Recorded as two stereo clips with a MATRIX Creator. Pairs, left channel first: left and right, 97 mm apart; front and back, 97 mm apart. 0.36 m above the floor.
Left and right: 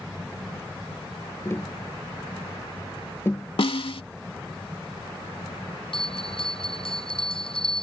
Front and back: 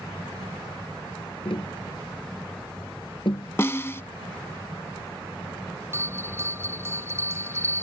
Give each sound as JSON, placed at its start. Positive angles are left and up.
{"t": 1.4, "sound": "tapping", "azimuth_deg": 25}
{"t": 3.6, "sound": "a snare drum", "azimuth_deg": 65}
{"t": 5.9, "sound": "a bell", "azimuth_deg": 115}